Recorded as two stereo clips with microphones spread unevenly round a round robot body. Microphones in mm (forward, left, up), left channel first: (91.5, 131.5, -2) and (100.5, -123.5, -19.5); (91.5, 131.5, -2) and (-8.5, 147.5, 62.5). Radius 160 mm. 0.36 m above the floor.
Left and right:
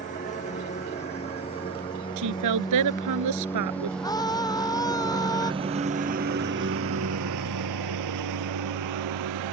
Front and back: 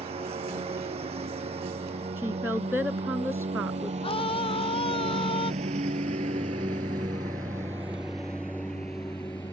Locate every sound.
0.0 s a lawn mower: 160° left; by 9.5 s 90° right
2.2 s a woman speaking: 105° right
4.0 s a scream: 15° left